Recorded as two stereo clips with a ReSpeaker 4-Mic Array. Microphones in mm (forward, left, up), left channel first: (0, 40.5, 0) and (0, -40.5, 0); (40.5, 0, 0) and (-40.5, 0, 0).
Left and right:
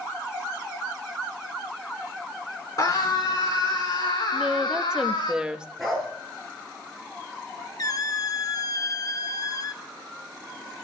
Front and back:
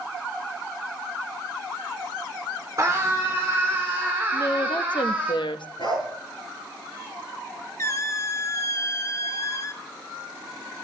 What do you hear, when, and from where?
2.8 s a scream: 130° left, 3 m; by 5.3 s 105° left, 4 m
4.3 s a woman speaking: 10° right, 0.8 m
5.8 s a dog barking: 5° left, 7.5 m
7.8 s a squeak: 50° left, 0.7 m